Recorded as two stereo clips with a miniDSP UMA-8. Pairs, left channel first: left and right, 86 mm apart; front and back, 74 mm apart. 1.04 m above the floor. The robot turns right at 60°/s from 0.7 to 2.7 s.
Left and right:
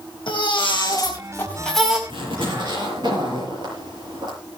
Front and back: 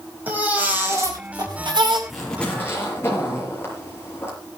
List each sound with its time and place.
0.3 s a baby crying: 110° left, 4.5 m; by 2.0 s 170° right, 4.5 m
2.1 s a zipper: 95° right, 6 m; by 4.3 s 60° right, 6 m